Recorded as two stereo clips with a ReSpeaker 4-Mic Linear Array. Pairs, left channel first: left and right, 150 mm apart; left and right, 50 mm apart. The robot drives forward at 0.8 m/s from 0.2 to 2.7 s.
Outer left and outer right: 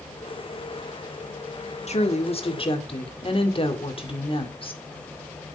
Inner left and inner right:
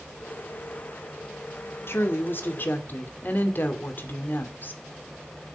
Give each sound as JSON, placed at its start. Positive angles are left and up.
{"t": 1.9, "sound": "a woman speaking", "side_deg": 50, "distance_m": 1.7}